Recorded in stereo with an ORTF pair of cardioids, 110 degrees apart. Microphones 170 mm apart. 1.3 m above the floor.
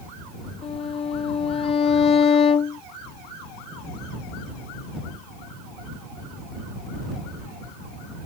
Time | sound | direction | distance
0.6 | a violin | 35° left | ?